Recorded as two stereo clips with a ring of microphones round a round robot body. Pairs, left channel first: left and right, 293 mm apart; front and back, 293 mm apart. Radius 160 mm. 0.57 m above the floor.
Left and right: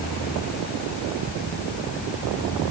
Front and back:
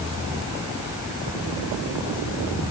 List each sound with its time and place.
Only background noise.